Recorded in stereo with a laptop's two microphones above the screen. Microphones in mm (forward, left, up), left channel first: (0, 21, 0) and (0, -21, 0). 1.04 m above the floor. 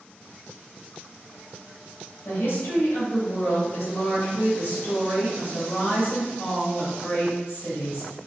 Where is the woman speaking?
65° left (ahead or behind), 1.7 m.